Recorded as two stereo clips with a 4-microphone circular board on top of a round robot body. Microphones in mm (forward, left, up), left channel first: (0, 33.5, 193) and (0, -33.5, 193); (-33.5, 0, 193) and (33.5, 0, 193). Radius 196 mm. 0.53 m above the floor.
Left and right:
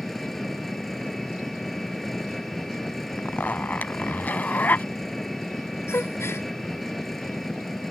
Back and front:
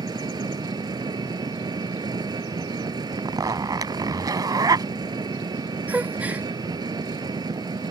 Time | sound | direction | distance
0.0 | an engine running | 5° left | ?
3.2 | a zipper | 25° left | ?
5.9 | a gasp | 60° left | ?